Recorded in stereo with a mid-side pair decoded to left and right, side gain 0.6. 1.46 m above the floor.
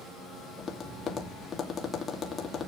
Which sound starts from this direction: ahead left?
Tapping, at 0.6 s.